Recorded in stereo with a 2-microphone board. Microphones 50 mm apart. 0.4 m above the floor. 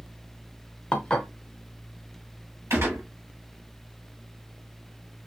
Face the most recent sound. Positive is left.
turn(degrees=-70)  # may be behind; listen again after turning